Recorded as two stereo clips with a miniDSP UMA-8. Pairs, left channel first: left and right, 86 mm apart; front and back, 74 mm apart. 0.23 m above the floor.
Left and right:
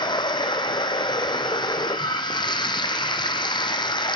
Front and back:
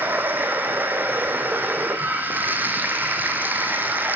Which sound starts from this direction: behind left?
Running water, at 0.0 s.